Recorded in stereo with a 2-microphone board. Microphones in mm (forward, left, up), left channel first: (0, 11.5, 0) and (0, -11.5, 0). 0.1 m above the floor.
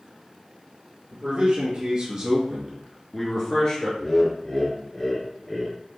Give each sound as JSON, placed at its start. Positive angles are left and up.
{"t": 1.1, "sound": "a man speaking", "side_deg": -50, "distance_m": 2.5}
{"t": 4.0, "sound": "laughter", "side_deg": 15, "distance_m": 1.3}